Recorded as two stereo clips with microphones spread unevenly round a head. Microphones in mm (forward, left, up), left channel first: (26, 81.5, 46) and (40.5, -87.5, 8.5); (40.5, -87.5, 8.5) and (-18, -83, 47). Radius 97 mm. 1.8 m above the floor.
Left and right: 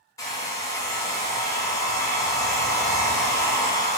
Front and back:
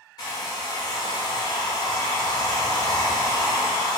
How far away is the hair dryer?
About 0.6 m.